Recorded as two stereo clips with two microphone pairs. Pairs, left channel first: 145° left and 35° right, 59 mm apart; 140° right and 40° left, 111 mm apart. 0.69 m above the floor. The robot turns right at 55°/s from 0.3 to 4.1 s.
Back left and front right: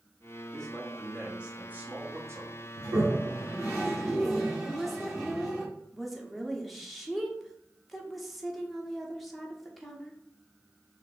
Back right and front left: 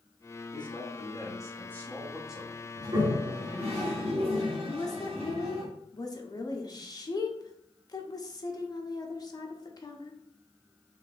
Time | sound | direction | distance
0.5 | a man speaking | 145° right | 0.9 m
2.8 | a toilet flushing | 20° right | 1.6 m
4.7 | a woman speaking | 125° right | 0.7 m